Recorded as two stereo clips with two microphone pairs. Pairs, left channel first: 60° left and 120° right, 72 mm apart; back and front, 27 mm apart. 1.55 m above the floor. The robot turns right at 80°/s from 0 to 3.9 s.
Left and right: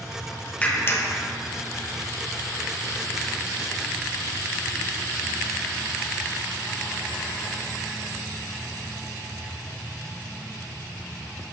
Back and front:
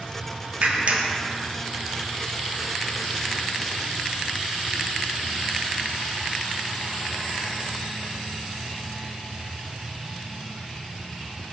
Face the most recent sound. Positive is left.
turn(degrees=-100)